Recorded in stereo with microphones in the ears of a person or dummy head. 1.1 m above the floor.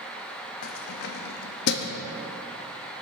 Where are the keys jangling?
60° left (ahead or behind), 0.9 m.